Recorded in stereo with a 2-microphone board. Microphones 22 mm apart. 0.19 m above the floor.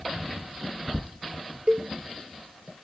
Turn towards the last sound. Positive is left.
turn(degrees=-50)  # may be behind; listen again after turning